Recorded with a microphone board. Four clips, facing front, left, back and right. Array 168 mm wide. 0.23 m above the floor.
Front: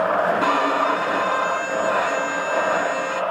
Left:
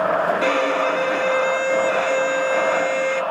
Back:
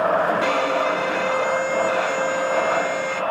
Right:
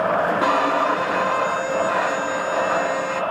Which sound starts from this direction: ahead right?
A violin, at 0.4 s.